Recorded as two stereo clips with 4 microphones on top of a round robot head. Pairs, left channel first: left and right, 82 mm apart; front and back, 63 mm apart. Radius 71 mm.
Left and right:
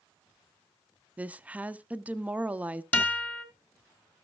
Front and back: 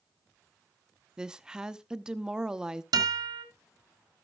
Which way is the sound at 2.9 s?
160° left.